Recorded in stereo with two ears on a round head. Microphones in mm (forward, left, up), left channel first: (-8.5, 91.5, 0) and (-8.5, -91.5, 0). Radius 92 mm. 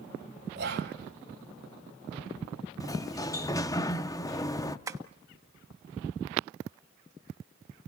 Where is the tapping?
15° right (ahead or behind), 1.1 m.